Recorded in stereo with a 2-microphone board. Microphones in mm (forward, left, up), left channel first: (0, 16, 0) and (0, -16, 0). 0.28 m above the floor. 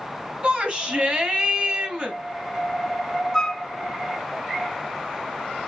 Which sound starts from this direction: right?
A shout, at 0.4 s.